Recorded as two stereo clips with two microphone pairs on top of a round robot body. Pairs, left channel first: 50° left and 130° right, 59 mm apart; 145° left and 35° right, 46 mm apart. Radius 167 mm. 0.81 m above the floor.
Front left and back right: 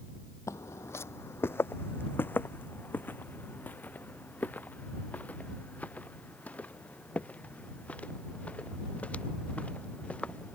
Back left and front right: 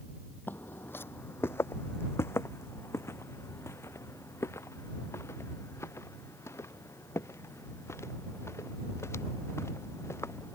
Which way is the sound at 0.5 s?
100° left.